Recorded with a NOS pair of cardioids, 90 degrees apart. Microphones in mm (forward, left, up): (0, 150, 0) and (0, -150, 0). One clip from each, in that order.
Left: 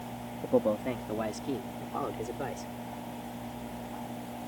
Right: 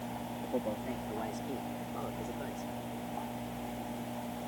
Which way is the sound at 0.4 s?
60° left.